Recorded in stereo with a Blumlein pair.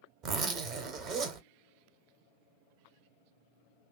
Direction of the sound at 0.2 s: 35° right.